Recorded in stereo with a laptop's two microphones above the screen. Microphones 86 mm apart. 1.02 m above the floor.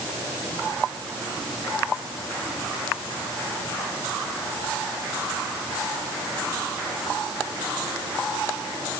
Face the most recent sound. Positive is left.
No sound to turn to.